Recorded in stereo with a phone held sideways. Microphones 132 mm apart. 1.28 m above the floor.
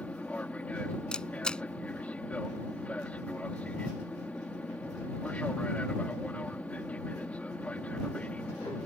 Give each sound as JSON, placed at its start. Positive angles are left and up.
{"t": 0.0, "sound": "an aircraft", "side_deg": 10}
{"t": 1.1, "sound": "a camera shutter", "side_deg": 5}